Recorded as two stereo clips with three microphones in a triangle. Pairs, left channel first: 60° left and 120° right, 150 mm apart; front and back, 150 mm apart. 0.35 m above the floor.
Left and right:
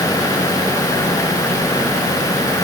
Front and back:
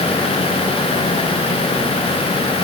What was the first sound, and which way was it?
Only background noise.